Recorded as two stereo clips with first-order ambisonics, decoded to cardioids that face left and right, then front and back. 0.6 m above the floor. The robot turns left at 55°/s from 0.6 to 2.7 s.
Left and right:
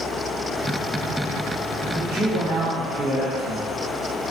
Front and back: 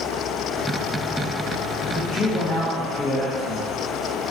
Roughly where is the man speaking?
Ahead right.